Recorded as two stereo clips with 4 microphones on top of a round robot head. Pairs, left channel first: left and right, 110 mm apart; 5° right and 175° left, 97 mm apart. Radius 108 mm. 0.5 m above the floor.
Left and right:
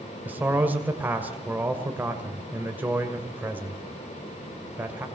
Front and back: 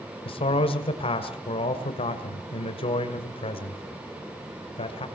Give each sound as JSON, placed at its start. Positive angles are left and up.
{"t": 0.2, "sound": "a man speaking", "azimuth_deg": -15, "distance_m": 2.0}